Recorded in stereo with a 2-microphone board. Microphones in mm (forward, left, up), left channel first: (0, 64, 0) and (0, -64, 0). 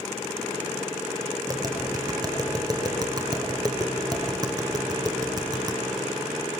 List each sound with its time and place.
1.5 s tapping: 30° right (ahead or behind), 0.9 m